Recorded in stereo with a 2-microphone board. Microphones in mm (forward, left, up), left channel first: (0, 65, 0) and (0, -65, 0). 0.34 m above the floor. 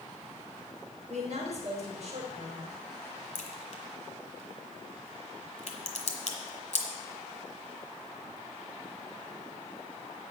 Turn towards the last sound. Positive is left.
turn(degrees=70)  # may be behind; listen again after turning